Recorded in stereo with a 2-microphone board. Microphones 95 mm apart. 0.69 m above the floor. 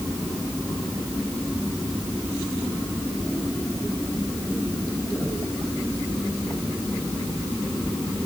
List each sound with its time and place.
Only background noise.